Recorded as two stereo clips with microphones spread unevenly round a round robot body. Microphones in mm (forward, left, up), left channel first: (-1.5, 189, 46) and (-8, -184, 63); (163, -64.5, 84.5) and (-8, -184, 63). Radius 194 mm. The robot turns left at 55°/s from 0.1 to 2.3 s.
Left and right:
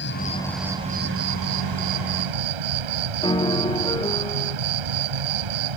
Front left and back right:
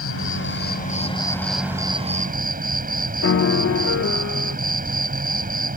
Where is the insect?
25° left; by 5.8 s 95° right.